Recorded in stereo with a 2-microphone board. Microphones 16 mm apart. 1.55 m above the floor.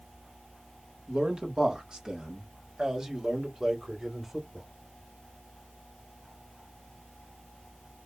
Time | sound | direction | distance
1.1 | a man speaking | 75° right (ahead or behind) | 2.5 m